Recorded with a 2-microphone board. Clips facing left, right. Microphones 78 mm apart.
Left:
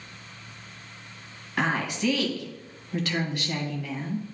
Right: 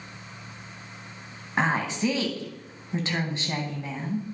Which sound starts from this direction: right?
A woman speaking, at 1.6 s.